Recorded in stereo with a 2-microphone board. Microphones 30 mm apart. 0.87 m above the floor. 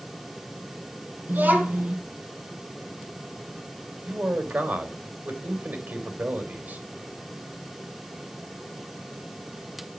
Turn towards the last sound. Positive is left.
turn(degrees=-70)  # may be behind; listen again after turning